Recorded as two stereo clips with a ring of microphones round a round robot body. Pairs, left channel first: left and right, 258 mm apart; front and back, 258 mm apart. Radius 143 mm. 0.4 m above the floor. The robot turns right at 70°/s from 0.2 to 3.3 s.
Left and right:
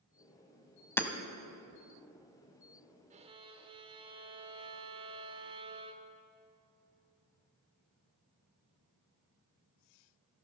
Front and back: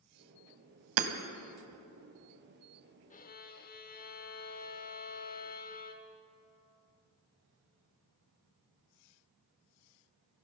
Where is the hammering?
170° left, 1.0 m; by 1.1 s straight behind, 1.0 m.